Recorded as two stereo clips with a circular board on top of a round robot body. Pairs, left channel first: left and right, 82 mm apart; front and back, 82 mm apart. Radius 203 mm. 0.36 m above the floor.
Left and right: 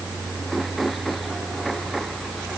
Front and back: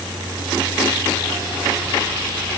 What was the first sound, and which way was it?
Only background noise.